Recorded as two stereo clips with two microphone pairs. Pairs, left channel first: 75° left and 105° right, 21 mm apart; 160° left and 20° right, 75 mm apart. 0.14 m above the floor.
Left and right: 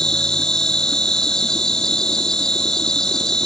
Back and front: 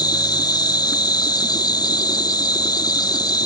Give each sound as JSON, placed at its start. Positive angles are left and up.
{"t": 0.0, "sound": "an insect", "azimuth_deg": 135, "distance_m": 1.4}